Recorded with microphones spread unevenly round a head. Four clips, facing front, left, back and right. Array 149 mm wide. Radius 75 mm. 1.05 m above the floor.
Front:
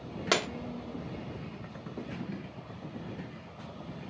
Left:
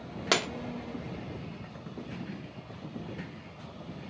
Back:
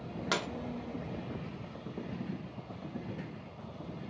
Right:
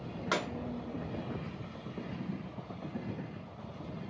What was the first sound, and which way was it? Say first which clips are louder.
Breaking glass: left 4 dB, front 5 dB; 85° left.